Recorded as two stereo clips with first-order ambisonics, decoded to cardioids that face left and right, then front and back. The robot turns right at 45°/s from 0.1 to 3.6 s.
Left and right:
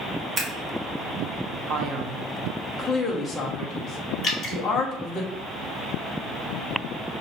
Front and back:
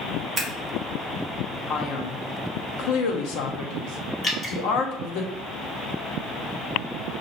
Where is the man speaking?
55° right, 1.0 m; by 5.2 s 35° left, 1.0 m.